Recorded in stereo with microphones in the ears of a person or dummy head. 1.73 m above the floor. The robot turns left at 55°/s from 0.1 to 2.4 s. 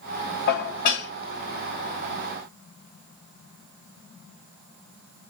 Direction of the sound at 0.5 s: 85° left.